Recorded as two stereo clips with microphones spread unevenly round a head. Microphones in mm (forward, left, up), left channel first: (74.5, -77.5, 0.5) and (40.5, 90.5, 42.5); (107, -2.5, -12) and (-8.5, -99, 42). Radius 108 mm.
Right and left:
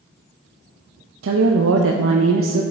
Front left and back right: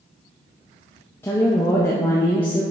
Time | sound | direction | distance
1.2 | a woman speaking | 110° left | 0.5 m